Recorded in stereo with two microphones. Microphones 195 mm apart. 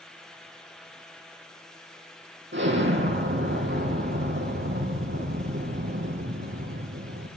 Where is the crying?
No crying in this recording.